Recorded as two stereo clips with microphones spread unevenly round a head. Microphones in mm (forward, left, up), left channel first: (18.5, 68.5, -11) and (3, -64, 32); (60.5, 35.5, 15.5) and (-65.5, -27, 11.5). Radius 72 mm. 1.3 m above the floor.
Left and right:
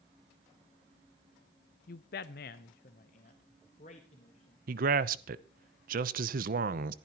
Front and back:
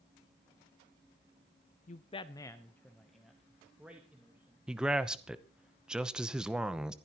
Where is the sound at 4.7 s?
70° right, 0.8 m.